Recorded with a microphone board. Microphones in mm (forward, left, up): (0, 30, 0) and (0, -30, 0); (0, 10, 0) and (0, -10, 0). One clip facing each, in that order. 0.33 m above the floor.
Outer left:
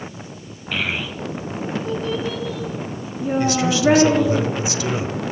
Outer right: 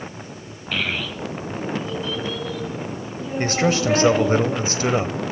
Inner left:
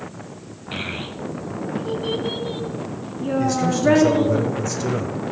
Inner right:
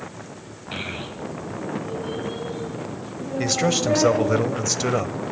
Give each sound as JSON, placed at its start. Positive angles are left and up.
{"t": 0.7, "sound": "a child speaking", "side_deg": 5, "distance_m": 1.6}
{"t": 3.4, "sound": "a man speaking", "side_deg": -45, "distance_m": 1.3}